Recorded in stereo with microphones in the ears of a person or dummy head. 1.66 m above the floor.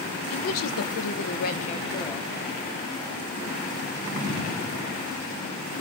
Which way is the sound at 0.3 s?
80° left.